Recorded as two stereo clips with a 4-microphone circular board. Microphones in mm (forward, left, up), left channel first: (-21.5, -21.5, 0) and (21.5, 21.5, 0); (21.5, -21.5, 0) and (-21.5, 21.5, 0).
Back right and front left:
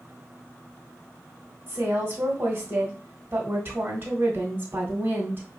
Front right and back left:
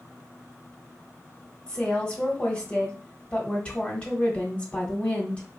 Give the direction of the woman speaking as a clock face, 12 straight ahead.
12 o'clock.